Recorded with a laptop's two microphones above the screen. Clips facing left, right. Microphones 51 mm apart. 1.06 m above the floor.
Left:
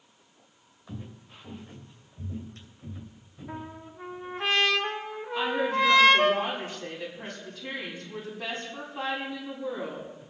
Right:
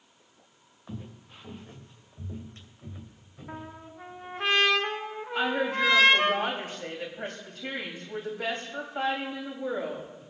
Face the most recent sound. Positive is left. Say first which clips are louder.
# left 1 dB
turn(degrees=-50)  # may be behind; listen again after turning